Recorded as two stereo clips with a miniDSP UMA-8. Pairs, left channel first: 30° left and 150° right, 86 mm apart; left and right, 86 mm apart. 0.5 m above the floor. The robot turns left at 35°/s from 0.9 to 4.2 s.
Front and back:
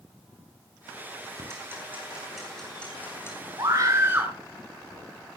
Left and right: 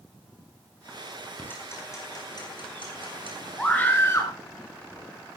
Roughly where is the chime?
No chime in this recording.